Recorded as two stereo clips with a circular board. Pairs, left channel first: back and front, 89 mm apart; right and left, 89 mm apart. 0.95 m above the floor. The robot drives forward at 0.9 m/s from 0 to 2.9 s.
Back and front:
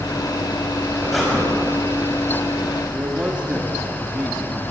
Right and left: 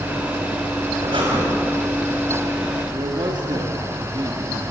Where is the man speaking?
75° left, 2 m.